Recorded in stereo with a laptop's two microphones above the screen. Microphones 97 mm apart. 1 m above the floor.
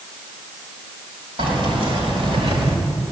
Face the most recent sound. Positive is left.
turn(degrees=-85)